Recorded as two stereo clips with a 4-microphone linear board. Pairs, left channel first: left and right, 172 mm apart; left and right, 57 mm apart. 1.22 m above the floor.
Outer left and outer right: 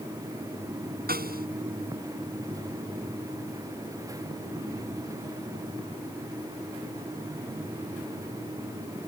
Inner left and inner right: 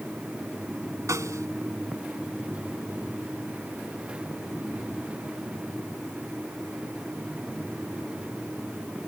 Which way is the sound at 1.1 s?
65° right (ahead or behind).